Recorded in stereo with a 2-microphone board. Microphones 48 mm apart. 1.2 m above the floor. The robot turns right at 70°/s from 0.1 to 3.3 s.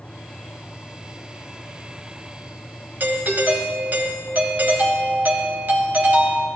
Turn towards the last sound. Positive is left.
turn(degrees=-40)  # may be behind; listen again after turning